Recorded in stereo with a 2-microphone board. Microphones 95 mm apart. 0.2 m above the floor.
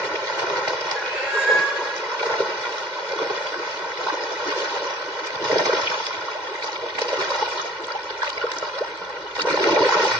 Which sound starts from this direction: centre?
A cat meowing, at 0.9 s.